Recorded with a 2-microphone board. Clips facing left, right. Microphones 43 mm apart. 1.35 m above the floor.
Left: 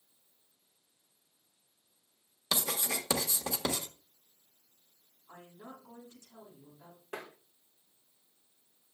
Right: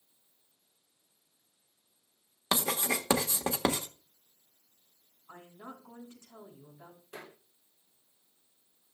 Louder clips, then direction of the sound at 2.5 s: Right 4 dB; 35° right (ahead or behind).